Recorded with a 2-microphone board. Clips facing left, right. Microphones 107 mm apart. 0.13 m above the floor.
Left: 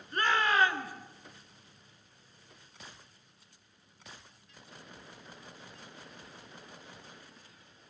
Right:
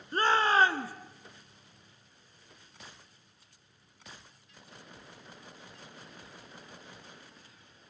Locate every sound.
0.1 s a shout: 30° right (ahead or behind), 1.2 m